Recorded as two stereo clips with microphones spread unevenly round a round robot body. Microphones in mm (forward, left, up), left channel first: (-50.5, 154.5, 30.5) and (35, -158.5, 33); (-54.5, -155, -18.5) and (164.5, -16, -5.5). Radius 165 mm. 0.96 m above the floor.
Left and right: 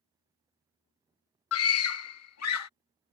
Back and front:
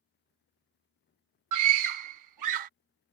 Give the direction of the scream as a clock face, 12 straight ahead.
10 o'clock.